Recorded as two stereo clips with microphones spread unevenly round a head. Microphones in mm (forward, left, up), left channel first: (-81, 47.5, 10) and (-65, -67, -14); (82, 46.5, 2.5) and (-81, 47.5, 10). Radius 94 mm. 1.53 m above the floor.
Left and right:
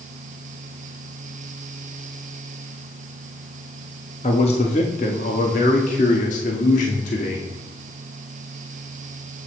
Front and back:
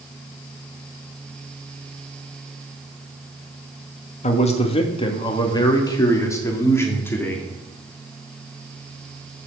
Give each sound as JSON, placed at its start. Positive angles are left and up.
{"t": 4.2, "sound": "a man speaking", "azimuth_deg": 45, "distance_m": 1.8}